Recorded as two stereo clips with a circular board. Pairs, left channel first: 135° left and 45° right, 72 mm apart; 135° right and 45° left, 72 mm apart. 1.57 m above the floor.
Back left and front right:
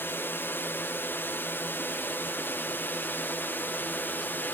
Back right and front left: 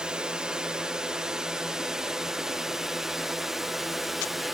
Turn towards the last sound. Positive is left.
turn(degrees=130)